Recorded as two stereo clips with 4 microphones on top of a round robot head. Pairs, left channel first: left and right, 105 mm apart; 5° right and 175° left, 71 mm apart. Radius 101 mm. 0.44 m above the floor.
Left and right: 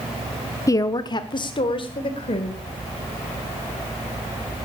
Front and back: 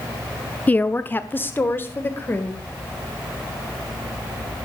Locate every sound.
0.7 s a woman speaking: 55° left, 0.8 m